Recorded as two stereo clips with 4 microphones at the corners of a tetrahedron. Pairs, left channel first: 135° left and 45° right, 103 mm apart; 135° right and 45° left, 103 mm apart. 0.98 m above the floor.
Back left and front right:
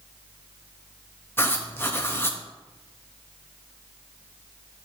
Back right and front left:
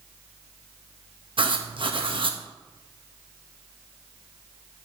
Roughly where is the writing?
Left.